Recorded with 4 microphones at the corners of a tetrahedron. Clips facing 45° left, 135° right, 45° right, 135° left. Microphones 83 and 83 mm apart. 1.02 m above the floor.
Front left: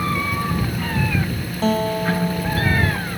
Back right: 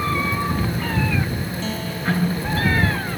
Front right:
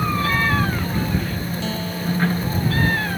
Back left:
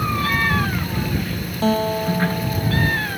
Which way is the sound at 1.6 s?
90° left.